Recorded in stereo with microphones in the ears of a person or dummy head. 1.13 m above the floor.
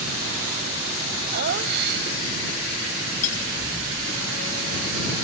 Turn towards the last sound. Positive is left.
turn(degrees=40)  # may be behind; listen again after turning